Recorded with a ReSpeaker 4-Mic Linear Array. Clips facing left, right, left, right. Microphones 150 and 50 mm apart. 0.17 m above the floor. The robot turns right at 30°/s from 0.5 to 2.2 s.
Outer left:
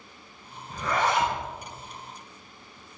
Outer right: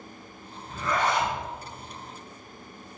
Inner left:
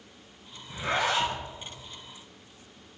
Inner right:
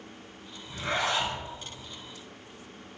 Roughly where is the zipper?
Centre.